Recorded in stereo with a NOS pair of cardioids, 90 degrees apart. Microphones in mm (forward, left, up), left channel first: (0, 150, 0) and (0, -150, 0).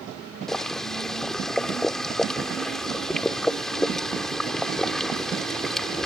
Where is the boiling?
Straight ahead.